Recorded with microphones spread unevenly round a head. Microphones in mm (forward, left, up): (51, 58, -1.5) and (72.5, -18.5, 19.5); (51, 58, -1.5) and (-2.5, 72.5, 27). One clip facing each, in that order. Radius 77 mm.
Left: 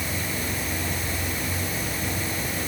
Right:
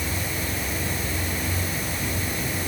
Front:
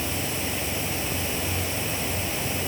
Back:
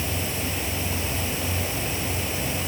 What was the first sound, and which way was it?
Only background noise.